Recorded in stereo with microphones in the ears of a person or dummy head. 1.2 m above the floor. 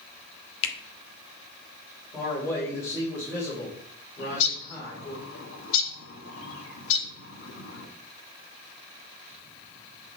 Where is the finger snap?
70° left (ahead or behind), 1.0 m.